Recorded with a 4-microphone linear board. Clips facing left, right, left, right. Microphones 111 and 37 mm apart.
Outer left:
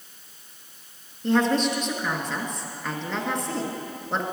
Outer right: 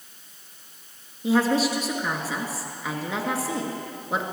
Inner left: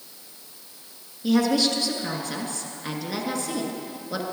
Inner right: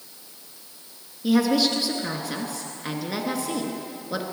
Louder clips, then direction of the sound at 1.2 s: Even, inner right 1 dB; 5° right (ahead or behind).